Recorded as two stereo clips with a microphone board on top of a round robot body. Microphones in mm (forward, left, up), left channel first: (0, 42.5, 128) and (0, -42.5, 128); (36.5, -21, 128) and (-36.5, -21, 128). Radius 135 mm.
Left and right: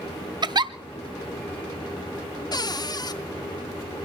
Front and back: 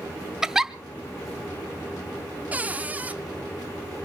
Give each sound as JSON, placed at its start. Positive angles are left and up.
{"t": 0.4, "sound": "a giggle", "azimuth_deg": -100, "distance_m": 1.0}
{"t": 2.5, "sound": "a cupboard door", "azimuth_deg": 115, "distance_m": 0.8}